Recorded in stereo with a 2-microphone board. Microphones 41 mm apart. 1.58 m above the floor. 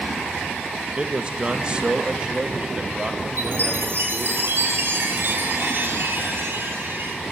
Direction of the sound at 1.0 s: 25° right (ahead or behind).